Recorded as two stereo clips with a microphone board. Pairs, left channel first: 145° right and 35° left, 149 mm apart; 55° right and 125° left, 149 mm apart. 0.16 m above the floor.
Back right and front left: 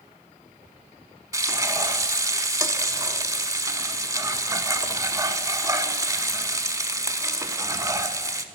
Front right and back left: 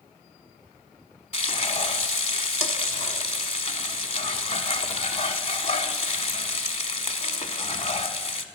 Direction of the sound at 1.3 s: 25° right.